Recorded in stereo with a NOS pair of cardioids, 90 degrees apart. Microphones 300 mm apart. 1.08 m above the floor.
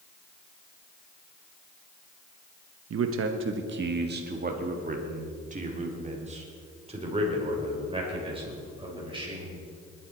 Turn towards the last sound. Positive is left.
turn(degrees=-15)